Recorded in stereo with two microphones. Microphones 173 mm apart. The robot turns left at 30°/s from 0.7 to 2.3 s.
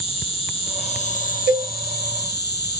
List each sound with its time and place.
0.0 s an insect: 145° left, 0.9 m; by 2.8 s 95° left, 0.9 m
1.5 s a cowbell: 75° right (ahead or behind), 0.6 m; by 1.7 s 80° right, 0.6 m